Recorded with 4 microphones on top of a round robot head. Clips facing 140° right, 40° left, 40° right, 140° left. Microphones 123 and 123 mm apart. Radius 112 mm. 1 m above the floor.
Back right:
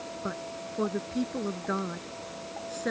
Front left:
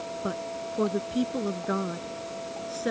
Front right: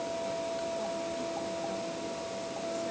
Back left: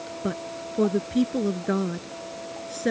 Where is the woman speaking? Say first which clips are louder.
Front left 4 dB, back left 2 dB; 115° left; by 2.9 s 125° left.